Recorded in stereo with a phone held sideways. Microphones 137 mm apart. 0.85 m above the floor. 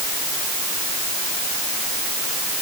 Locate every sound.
Only background noise.